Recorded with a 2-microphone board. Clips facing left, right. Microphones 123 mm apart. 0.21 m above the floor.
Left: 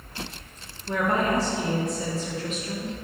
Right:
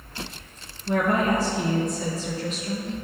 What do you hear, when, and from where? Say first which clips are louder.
0.9 s a woman speaking: right 2 dB; 60° right (ahead or behind), 3 m; by 2.9 s 30° right (ahead or behind), 3 m